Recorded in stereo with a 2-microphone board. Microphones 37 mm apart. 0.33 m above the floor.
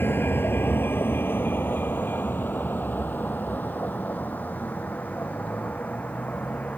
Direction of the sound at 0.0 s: 80° left.